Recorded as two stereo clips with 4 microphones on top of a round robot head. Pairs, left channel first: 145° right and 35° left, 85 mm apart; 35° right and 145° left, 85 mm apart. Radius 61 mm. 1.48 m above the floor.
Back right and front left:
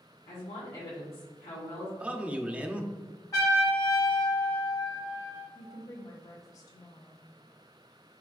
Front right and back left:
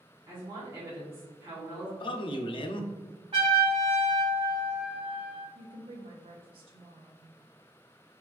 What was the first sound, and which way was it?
A woman speaking, 165° right.